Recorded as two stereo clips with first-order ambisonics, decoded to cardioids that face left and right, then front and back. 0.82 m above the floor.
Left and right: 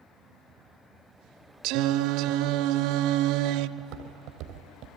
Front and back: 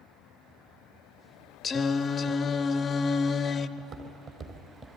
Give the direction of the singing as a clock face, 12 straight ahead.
2 o'clock.